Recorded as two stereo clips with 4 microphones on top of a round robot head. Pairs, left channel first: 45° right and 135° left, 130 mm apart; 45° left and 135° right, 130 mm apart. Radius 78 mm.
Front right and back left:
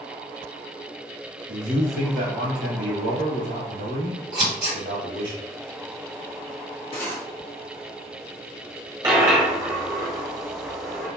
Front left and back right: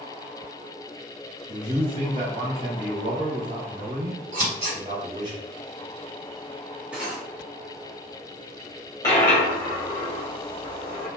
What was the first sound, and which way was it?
A man speaking, 165° left.